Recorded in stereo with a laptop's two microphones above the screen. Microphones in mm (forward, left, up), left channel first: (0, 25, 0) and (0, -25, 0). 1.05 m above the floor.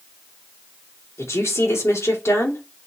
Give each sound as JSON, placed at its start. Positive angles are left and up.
{"t": 1.2, "sound": "a woman speaking", "side_deg": 65, "distance_m": 3.0}